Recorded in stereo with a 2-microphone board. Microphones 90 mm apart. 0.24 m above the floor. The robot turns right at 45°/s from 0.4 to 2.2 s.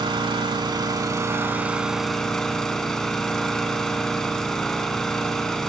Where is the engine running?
75° right, 0.7 m; by 5.7 s 5° left, 0.7 m.